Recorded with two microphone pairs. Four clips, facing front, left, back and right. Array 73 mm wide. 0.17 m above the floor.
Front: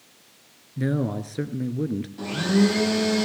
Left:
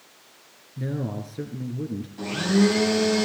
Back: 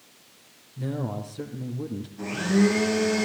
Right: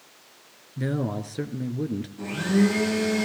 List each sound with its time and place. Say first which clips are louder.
0.8 s a man speaking: right 3 dB, front 5 dB; 30° right, 2.5 m
2.2 s a blender: left 2 dB, front 1 dB; 55° left, 5 m